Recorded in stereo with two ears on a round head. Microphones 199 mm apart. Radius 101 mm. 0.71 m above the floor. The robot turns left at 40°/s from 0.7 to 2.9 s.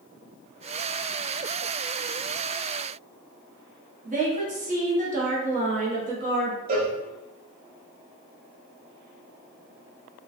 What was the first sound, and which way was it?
A woman speaking, 35° right (ahead or behind).